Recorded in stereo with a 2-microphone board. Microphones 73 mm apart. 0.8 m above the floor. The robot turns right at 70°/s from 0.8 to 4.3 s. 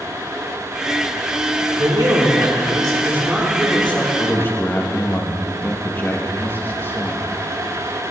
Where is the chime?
No chime in this recording.